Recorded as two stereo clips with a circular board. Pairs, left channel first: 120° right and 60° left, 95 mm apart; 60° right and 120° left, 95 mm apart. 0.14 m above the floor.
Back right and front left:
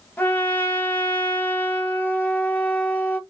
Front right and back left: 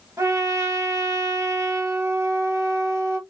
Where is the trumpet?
170° left, 1.2 m.